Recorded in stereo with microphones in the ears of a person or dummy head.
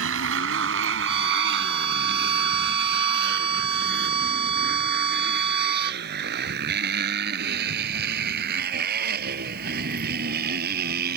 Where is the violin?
35° right (ahead or behind).